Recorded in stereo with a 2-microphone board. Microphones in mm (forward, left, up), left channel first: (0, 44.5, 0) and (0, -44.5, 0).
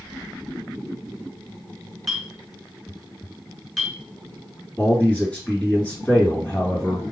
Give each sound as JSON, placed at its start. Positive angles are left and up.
{"t": 2.1, "sound": "a clink", "side_deg": 0, "distance_m": 1.4}
{"t": 4.8, "sound": "a man speaking", "side_deg": 20, "distance_m": 2.5}